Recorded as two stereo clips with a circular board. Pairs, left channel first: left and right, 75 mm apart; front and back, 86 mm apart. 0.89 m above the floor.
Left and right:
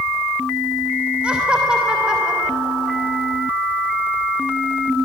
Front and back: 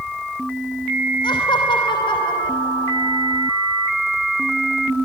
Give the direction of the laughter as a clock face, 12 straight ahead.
12 o'clock.